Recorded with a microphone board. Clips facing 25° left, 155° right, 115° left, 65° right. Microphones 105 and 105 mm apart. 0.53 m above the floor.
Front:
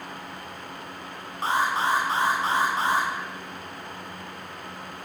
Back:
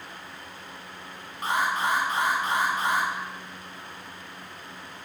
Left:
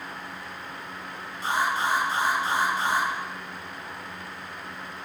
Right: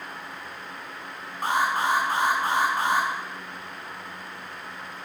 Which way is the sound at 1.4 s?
35° right.